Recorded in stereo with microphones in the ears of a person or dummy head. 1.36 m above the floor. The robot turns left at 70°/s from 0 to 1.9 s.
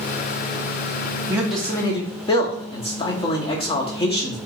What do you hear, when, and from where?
1.3 s a man speaking: 165° right, 1.0 m; by 4.4 s 150° left, 1.0 m